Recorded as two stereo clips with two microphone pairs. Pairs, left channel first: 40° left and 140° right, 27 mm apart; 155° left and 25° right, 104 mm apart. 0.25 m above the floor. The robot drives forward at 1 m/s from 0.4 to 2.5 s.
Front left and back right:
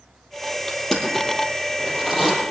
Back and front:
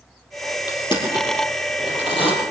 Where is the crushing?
110° left, 3.5 m; by 2.3 s 130° left, 4.5 m.